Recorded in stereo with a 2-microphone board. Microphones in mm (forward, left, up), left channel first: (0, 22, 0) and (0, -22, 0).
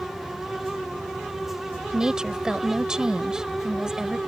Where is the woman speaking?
15° right (ahead or behind).